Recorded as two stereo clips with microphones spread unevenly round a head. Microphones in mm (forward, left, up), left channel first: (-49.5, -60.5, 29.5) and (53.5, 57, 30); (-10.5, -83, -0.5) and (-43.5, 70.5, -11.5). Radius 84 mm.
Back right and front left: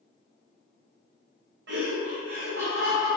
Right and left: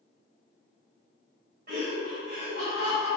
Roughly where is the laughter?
Ahead left.